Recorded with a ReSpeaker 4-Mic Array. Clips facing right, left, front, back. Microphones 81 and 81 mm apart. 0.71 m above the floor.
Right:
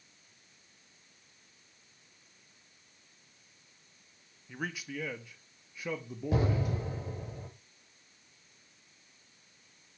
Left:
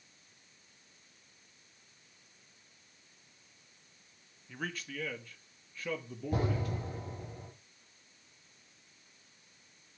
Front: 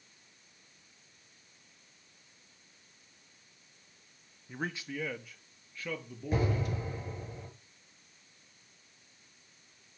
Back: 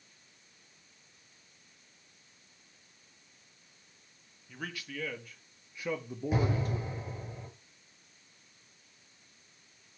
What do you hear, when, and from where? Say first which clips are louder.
4.5 s a man speaking: right 2 dB, front 4 dB; 20° right, 1.1 m; by 6.9 s 165° right, 1.4 m
6.3 s an explosion: right 3 dB, even; 95° right, 5.5 m